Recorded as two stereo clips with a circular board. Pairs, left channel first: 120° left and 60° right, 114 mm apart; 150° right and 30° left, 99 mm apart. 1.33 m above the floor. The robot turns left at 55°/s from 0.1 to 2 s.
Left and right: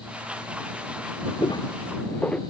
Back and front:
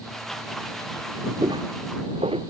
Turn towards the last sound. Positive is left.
turn(degrees=40)